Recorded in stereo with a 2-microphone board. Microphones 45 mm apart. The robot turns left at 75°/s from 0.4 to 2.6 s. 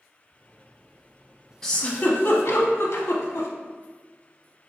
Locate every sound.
1.6 s a giggle: 10° left (ahead or behind), 0.6 m; by 3.5 s 65° left (ahead or behind), 0.6 m